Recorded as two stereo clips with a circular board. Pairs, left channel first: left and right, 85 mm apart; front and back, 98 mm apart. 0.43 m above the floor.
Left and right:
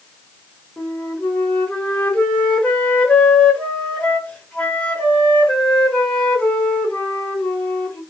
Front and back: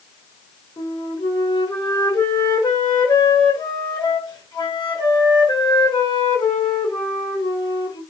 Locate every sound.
0.8 s a flute: 20° left, 1.6 m